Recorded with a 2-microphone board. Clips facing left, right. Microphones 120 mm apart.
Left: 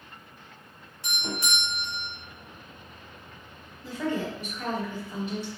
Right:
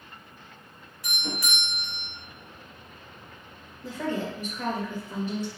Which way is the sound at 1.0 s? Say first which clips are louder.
Left 1 dB; 25° left (ahead or behind).